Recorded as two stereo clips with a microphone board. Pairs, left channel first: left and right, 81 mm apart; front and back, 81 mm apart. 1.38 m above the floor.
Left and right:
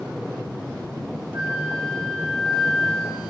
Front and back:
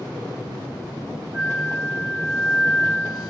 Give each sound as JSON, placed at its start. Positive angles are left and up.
{"t": 1.3, "sound": "a flute", "azimuth_deg": -105, "distance_m": 1.1}